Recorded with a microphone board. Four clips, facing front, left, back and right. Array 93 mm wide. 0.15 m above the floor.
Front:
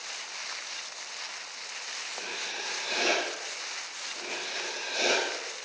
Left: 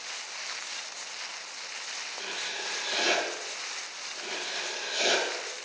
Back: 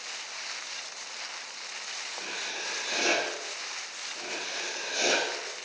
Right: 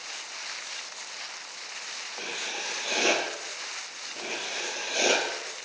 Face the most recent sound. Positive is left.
turn(degrees=-75)